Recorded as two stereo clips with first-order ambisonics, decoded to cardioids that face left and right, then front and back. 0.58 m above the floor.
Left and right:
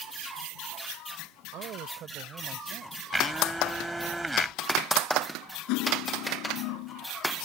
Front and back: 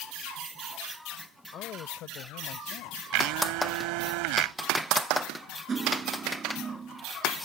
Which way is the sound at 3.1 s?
175° right.